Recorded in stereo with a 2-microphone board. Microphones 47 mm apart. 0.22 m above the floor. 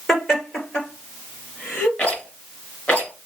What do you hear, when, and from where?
0.1 s laughter: 10° left (ahead or behind), 3.5 m; by 1.9 s 25° left (ahead or behind), 4 m
2.0 s a rattle: 20° left (ahead or behind), 3 m